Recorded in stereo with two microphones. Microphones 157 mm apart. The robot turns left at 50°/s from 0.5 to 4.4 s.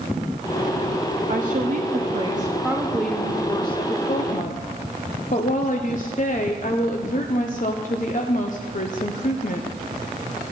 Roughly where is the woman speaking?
Right.